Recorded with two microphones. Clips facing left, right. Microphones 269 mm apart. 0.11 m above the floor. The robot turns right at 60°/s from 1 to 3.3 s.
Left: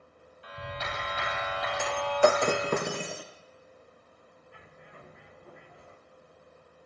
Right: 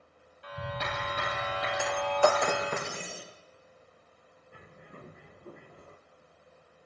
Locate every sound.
0.4 s a clap: 65° right, 7 m; by 2.8 s 40° left, 7 m
1.8 s breaking glass: 5° right, 1.5 m; by 3.2 s 80° left, 1.5 m
4.5 s a bird: 45° right (ahead or behind), 1.9 m